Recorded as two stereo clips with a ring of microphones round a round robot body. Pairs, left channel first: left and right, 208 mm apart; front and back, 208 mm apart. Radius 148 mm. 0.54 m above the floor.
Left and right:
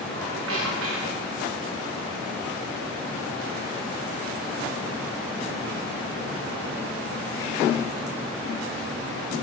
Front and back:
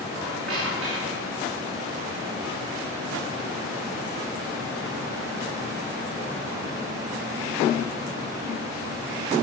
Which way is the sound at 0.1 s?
90° right.